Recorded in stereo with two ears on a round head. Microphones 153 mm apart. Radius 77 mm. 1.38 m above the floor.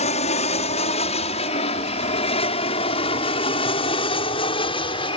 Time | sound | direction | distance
0.0 | an aircraft | 40° left (ahead or behind) | ?